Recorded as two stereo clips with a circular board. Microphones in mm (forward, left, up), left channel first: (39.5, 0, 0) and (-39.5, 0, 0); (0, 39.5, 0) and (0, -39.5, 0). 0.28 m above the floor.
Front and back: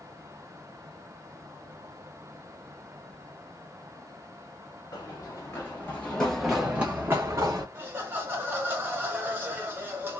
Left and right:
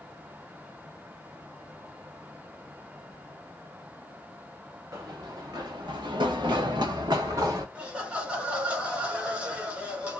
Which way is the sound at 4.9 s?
45° right.